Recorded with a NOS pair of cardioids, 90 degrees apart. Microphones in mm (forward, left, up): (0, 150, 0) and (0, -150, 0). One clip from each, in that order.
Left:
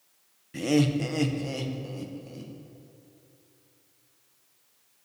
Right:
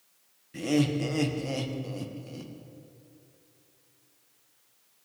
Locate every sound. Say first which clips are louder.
0.5 s laughter: left 2 dB; 20° left, 1.1 m; by 2.5 s 20° right, 1.6 m